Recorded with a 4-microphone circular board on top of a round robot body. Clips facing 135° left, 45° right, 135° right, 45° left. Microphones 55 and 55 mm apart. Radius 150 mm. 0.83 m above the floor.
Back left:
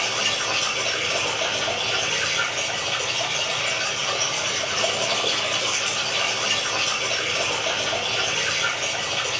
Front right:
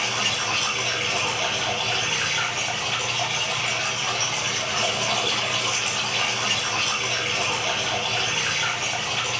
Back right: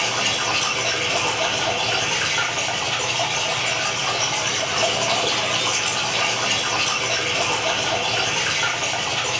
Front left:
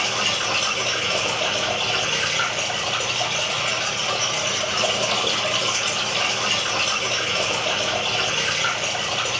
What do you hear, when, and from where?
0.0 s running water: 115° right, 1.2 m